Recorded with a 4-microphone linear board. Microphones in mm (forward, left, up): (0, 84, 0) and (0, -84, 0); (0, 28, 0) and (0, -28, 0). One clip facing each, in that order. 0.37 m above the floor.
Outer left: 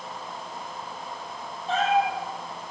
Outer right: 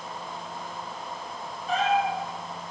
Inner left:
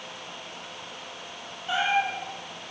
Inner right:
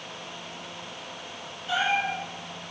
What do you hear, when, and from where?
1.7 s a cat meowing: 30° left (ahead or behind), 8 m